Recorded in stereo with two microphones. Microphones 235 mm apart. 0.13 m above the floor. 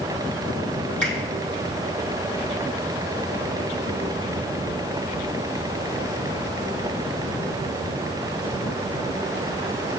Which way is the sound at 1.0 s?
75° left (ahead or behind).